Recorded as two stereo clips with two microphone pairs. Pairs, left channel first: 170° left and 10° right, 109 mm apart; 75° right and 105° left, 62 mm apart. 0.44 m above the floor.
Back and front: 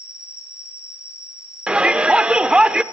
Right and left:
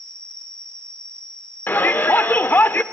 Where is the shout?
80° right, 0.9 m.